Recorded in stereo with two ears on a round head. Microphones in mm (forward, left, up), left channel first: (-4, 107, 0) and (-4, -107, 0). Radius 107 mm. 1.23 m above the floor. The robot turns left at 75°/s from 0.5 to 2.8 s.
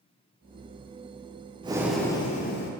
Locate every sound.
1.6 s breathing: 155° right, 0.5 m; by 2.7 s 120° left, 0.5 m